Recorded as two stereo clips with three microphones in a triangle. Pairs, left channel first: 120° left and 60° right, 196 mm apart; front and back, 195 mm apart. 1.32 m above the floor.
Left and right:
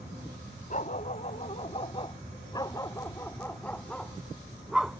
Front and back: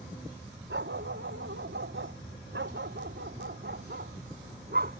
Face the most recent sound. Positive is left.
turn(degrees=-145)